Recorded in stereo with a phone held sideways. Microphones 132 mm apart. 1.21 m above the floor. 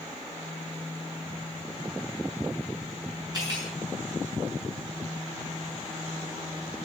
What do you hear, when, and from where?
3.3 s cutlery clinking: 30° right (ahead or behind), 7.5 m